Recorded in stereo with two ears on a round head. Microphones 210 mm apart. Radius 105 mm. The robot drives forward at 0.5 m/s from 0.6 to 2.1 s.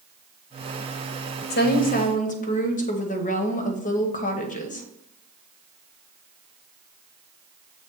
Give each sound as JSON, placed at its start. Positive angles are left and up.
{"t": 1.5, "sound": "a woman speaking", "side_deg": 45, "distance_m": 0.9}